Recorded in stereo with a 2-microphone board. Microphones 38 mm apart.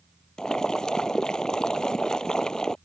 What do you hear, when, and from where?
0.4 s boiling: 20° left (ahead or behind)